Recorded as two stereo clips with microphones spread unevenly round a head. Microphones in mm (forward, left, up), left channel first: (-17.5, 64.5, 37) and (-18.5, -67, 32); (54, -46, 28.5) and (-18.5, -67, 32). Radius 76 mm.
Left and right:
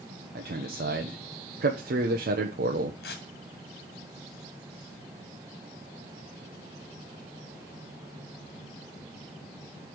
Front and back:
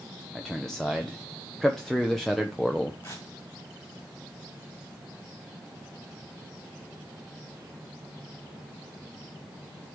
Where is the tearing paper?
90° left, 1.5 m.